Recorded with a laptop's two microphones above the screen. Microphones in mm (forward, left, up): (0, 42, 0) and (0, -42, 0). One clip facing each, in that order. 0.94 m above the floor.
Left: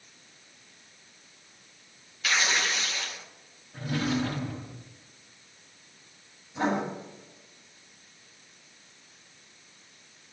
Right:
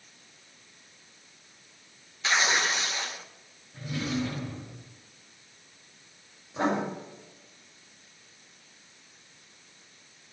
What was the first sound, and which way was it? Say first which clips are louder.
Tearing paper: right 2 dB; 25° right (ahead or behind).